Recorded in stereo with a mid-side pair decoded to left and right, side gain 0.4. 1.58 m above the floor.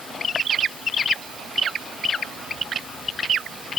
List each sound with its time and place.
Only background noise.